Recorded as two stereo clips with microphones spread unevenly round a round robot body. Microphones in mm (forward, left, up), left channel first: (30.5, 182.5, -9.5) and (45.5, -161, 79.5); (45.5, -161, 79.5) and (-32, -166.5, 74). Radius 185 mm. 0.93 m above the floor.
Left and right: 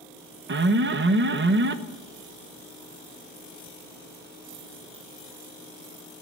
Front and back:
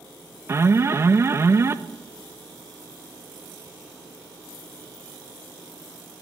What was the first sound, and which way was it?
An alarm, 150° right.